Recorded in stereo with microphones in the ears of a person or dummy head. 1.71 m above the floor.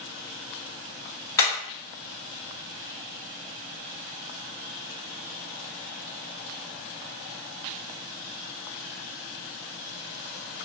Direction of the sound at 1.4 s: 20° left (ahead or behind).